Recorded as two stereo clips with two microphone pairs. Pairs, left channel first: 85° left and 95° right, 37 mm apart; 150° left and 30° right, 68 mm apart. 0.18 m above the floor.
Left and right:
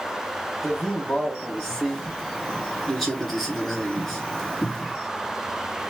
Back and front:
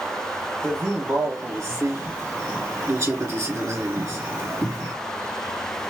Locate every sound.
0.6 s a man speaking: 5° right, 2 m